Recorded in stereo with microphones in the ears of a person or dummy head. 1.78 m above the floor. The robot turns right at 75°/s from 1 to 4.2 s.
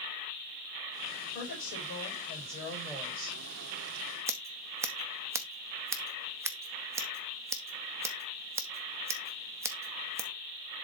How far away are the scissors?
About 0.7 m.